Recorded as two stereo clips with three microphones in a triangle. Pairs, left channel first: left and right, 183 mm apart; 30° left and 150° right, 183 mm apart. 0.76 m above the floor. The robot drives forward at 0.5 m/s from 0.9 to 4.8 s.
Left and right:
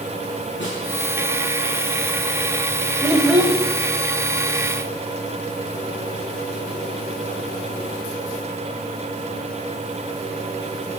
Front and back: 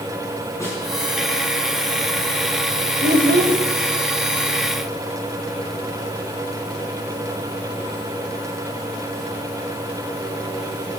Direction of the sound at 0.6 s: 105° left.